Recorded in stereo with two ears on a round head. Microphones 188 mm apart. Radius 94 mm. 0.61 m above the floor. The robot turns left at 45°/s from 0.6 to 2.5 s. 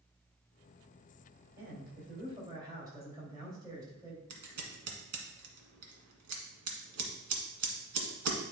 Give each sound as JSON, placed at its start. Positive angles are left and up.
{"t": 1.6, "sound": "a man speaking", "azimuth_deg": -120, "distance_m": 3.0}
{"t": 4.3, "sound": "scissors", "side_deg": -80, "distance_m": 1.6}